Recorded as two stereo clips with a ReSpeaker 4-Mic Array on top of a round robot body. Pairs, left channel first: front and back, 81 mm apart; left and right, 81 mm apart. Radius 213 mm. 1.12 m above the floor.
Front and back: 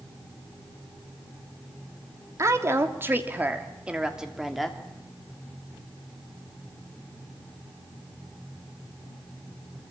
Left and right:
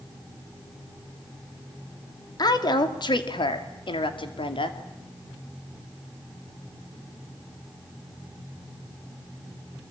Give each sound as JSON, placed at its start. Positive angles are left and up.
{"t": 2.4, "sound": "a woman speaking", "azimuth_deg": 125, "distance_m": 2.5}